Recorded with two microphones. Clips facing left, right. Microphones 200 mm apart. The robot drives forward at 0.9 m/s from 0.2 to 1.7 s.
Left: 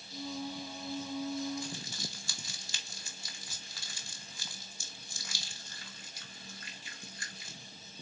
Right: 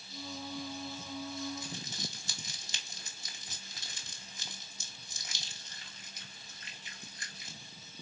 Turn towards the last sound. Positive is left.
turn(degrees=-20)  # may be behind; listen again after turning